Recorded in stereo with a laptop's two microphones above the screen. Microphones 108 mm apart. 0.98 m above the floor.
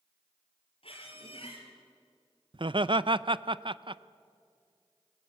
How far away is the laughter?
About 0.5 m.